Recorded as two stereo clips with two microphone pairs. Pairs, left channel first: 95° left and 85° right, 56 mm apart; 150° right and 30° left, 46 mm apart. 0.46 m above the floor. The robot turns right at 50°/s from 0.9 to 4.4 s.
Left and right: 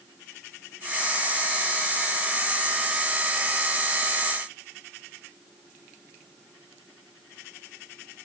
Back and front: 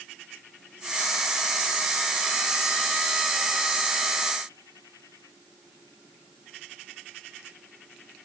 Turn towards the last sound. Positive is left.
No sound to turn to.